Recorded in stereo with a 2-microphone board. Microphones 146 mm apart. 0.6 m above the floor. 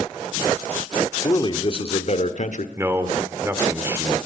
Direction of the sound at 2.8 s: 15° right (ahead or behind).